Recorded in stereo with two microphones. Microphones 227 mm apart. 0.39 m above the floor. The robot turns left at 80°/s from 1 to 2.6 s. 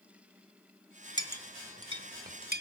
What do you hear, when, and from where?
1.2 s a clink: 20° left (ahead or behind), 0.7 m; by 2.6 s 45° right (ahead or behind), 0.7 m